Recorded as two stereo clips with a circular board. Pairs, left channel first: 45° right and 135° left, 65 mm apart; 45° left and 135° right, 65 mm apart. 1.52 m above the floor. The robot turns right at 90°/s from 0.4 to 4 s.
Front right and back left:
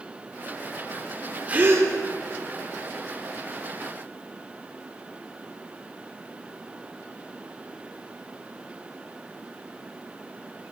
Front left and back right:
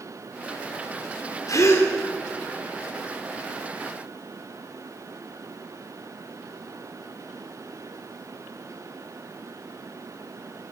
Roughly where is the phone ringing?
No phone ringing in this recording.